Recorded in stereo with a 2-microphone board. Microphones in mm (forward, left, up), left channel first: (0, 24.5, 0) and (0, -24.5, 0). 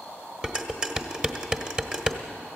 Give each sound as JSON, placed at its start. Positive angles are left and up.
{"t": 0.4, "sound": "dishes clattering", "side_deg": -20, "distance_m": 1.4}